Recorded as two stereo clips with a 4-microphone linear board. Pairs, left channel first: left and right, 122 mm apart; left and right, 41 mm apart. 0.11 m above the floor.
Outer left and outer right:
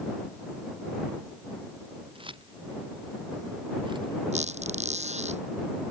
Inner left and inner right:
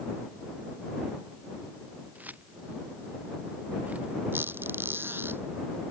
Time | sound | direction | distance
2.1 | keys jangling | 45° right (ahead or behind) | ?
4.3 | a squeak | 70° right (ahead or behind) | ?